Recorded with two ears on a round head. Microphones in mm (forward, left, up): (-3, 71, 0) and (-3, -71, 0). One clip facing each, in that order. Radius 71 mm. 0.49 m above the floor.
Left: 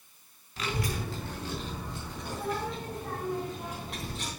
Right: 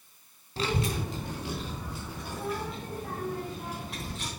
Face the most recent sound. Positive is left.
turn(degrees=5)  # may be behind; listen again after turning